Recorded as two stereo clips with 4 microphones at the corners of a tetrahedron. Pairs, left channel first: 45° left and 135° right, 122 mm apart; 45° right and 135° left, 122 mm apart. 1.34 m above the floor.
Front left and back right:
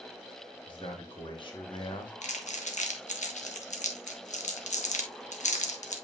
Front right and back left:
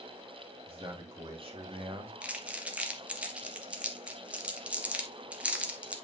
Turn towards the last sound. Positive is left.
turn(degrees=55)